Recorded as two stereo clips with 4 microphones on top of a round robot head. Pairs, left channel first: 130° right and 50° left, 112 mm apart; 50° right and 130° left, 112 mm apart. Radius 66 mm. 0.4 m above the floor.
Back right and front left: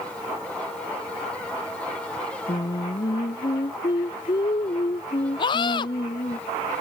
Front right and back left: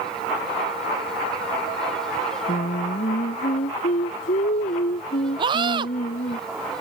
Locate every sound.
2.5 s singing: 70° right
5.4 s a scream: straight behind